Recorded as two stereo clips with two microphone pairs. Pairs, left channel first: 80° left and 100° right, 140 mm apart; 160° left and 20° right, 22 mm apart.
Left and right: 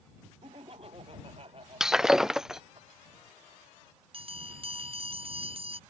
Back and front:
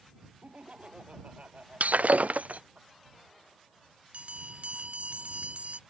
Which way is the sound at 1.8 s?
10° right.